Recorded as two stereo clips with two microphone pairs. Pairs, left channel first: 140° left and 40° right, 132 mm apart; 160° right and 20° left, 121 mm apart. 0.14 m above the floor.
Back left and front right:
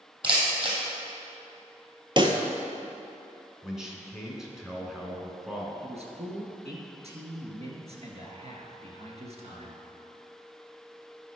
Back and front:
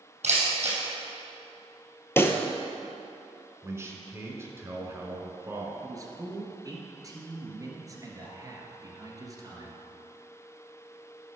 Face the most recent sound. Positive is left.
turn(degrees=-35)